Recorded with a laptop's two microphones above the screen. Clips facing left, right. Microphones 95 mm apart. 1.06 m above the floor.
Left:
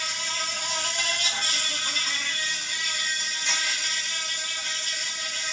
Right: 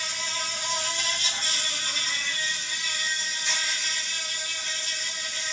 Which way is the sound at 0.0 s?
60° left (ahead or behind).